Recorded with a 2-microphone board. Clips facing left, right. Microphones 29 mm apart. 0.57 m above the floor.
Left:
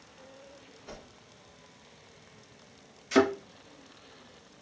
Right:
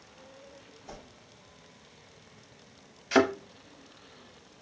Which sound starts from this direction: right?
A thud, at 3.1 s.